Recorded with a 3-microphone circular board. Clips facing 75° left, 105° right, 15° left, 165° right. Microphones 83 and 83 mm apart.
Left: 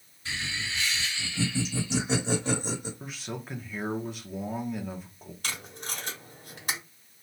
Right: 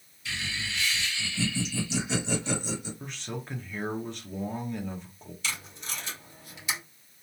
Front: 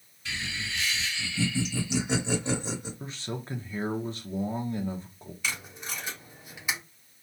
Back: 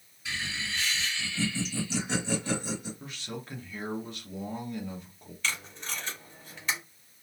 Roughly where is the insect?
I don't hear an insect.